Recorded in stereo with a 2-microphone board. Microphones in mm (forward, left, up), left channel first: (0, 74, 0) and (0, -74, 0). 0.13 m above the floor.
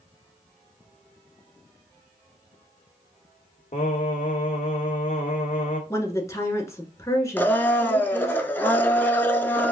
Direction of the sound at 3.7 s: 55° left (ahead or behind).